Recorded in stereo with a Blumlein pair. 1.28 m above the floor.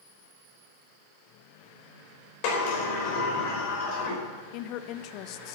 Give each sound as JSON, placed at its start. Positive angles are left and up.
{"t": 2.4, "sound": "a sliding door", "azimuth_deg": 45, "distance_m": 5.5}
{"t": 4.5, "sound": "a woman speaking", "azimuth_deg": 40, "distance_m": 0.8}